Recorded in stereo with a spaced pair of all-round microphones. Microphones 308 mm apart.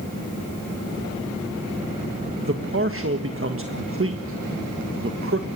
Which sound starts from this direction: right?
A man speaking, at 2.4 s.